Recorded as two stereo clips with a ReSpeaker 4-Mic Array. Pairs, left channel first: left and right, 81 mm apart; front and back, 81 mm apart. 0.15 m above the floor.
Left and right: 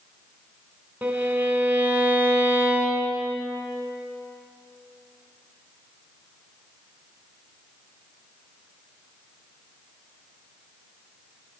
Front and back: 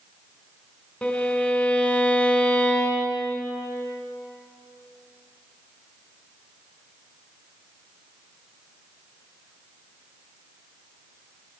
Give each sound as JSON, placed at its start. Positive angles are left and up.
{"t": 1.0, "sound": "a violin", "azimuth_deg": -55, "distance_m": 1.5}